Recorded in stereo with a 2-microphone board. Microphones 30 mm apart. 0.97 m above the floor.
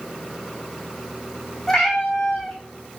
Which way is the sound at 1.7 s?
10° left (ahead or behind).